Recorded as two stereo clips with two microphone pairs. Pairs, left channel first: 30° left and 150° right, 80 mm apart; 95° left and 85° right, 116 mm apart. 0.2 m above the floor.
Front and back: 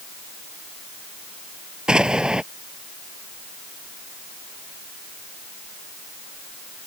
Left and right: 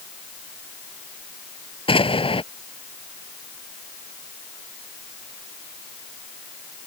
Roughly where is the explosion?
Behind left.